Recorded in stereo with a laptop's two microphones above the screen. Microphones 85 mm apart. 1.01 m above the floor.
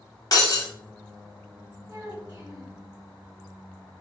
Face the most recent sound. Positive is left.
turn(degrees=-20)  # may be behind; listen again after turning